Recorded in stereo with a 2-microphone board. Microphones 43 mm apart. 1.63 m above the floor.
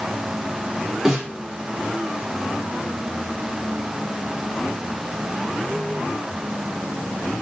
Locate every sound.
1.1 s a snare drum: 10° right (ahead or behind), 3.5 m